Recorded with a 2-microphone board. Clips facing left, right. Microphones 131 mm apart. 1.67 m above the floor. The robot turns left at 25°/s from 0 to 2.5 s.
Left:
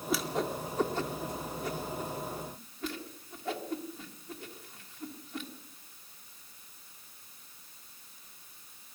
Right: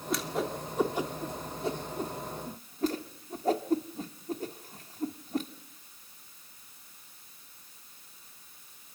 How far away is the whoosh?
About 1.7 m.